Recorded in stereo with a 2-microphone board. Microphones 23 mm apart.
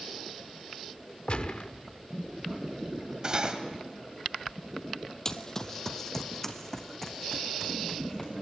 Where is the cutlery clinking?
35° right (ahead or behind), 2 m.